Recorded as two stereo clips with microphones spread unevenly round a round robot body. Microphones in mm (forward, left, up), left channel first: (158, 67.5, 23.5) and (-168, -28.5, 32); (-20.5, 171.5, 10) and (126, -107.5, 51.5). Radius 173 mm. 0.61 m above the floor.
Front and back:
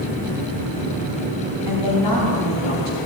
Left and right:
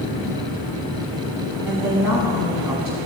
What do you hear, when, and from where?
1.6 s a woman speaking: 30° left, 5.5 m; by 3.0 s 20° left, 5 m